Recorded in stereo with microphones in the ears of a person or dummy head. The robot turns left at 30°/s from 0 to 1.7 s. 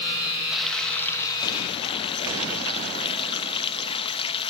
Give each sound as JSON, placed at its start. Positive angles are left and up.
{"t": 0.5, "sound": "frying", "azimuth_deg": -170, "distance_m": 1.1}